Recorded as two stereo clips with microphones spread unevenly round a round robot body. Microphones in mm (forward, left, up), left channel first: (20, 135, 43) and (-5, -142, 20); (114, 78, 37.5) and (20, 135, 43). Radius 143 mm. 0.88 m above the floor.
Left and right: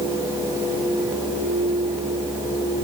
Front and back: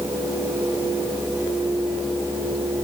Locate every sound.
Only background noise.